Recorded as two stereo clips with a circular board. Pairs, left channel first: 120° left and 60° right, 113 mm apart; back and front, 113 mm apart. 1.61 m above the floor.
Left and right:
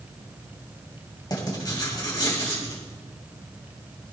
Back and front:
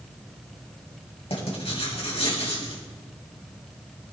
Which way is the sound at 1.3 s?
165° left.